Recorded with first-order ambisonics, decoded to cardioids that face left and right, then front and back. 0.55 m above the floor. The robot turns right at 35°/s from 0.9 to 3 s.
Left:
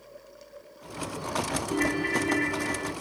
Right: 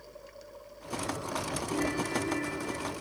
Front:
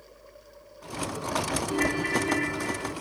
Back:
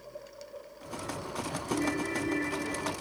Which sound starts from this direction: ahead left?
A ringtone, at 1.7 s.